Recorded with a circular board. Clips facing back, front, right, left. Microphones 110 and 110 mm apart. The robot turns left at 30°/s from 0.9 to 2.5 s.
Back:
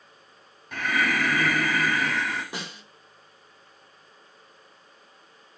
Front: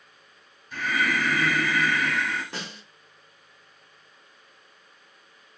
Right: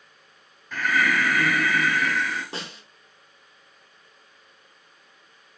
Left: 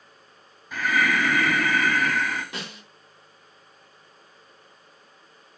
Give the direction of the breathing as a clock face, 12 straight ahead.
6 o'clock.